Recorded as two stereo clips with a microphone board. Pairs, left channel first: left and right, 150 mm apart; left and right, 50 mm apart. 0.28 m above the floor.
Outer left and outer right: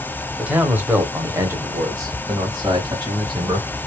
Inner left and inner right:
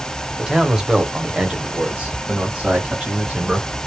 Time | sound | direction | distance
0.4 | a man speaking | 10° right (ahead or behind) | 1.1 m